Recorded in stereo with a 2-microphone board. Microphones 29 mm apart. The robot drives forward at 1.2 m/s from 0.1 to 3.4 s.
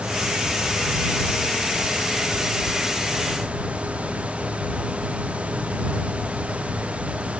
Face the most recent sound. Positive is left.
No sound to turn to.